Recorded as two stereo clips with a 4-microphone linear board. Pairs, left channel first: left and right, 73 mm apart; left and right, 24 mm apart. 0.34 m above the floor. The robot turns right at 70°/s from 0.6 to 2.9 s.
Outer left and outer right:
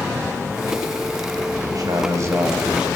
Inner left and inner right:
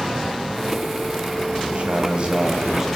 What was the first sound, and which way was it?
A man speaking, 90° right.